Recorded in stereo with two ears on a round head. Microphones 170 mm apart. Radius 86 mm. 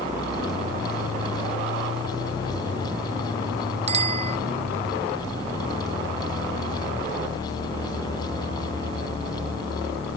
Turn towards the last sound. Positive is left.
turn(degrees=-35)  # may be behind; listen again after turning